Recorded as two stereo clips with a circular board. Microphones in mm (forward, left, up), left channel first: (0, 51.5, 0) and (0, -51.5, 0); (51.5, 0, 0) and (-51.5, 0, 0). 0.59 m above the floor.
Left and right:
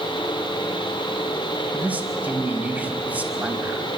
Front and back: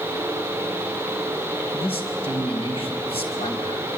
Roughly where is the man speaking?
Ahead.